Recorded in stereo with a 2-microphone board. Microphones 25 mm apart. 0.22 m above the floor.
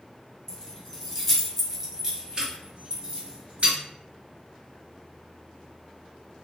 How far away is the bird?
No bird in this recording.